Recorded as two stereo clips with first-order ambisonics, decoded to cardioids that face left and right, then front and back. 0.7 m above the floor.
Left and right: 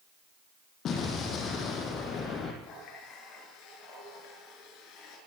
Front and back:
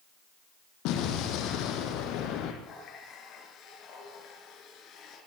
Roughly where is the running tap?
Ahead left.